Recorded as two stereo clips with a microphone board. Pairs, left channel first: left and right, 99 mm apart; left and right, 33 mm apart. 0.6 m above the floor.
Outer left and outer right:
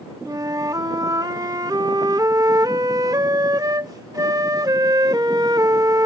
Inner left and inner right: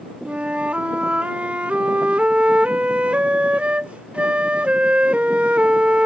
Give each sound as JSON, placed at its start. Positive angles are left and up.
{"t": 0.2, "sound": "a flute", "side_deg": -40}